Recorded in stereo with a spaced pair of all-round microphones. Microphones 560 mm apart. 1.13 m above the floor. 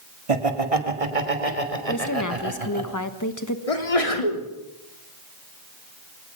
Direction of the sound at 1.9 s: 30° left (ahead or behind).